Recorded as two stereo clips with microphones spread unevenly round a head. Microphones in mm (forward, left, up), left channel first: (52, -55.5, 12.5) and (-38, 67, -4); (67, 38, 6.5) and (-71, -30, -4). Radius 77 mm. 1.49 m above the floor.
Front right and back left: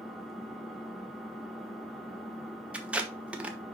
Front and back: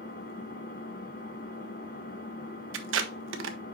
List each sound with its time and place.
0.0 s an engine running: 30° left, 1.6 m
2.7 s tape being pulled: 150° right, 1.1 m